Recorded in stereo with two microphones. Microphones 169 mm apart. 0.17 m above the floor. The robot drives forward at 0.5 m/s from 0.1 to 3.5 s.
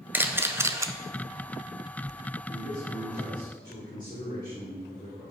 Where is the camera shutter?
10° right (ahead or behind), 0.8 m; by 0.9 s 20° right (ahead or behind), 0.5 m.